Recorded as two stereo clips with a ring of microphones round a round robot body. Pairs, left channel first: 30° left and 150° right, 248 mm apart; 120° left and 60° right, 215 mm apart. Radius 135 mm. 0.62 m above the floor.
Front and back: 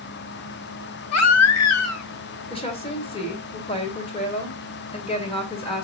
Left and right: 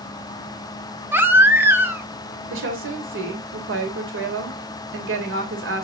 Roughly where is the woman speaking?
Ahead right.